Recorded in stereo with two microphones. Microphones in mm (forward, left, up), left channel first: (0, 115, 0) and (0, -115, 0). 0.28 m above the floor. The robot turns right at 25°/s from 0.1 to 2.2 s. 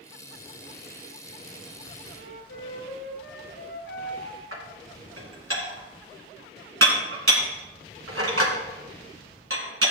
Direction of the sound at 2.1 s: 75° left (ahead or behind).